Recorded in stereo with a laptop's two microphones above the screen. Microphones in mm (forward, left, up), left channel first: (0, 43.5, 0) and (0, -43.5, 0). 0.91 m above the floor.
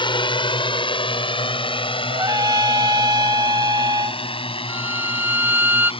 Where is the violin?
20° right (ahead or behind).